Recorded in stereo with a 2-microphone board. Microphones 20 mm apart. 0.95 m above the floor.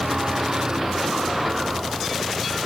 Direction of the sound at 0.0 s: 40° right (ahead or behind).